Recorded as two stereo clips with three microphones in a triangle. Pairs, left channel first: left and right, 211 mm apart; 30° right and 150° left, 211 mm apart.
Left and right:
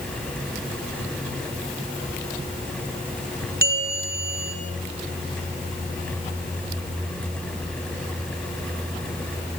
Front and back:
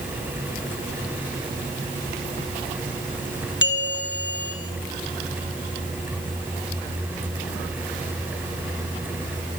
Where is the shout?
I don't hear a shout.